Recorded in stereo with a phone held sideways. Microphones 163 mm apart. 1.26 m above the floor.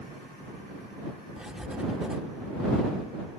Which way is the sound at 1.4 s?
5° right (ahead or behind).